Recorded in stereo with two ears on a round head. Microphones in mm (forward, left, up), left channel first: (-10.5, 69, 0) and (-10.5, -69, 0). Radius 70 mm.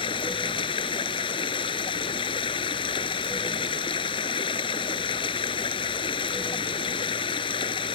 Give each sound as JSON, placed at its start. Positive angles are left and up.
{"t": 0.0, "sound": "running water", "side_deg": 35}